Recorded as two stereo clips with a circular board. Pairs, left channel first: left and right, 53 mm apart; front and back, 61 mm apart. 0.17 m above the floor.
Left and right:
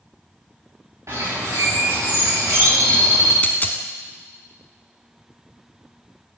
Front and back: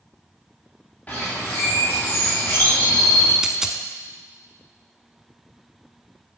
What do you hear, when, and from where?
1.1 s a bird: 65° right, 3.5 m
3.4 s a dropped coin: 105° left, 0.6 m